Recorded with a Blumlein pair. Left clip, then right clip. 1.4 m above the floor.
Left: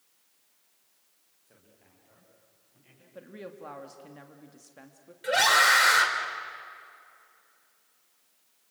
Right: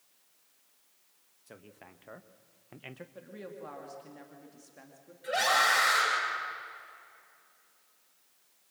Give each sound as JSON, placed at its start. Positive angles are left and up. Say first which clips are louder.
{"t": 1.5, "sound": "a man speaking", "louder": "right 10 dB", "azimuth_deg": -60, "distance_m": 2.0}
{"t": 3.1, "sound": "a woman speaking", "louder": "left 7 dB", "azimuth_deg": 10, "distance_m": 2.5}
{"t": 5.2, "sound": "a scream", "louder": "left 5 dB", "azimuth_deg": 60, "distance_m": 6.0}